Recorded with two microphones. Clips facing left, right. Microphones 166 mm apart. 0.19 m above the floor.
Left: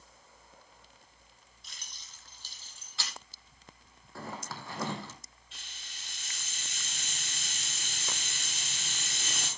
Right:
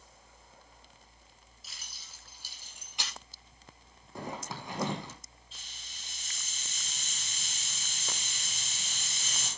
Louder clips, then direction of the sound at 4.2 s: Right 2 dB; 20° right (ahead or behind).